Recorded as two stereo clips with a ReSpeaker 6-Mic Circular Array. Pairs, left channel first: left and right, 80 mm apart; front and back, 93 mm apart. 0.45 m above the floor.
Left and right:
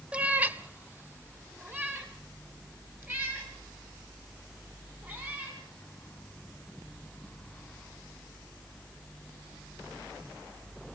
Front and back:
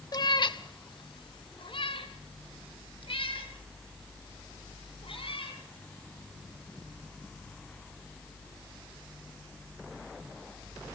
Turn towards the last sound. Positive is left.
turn(degrees=-25)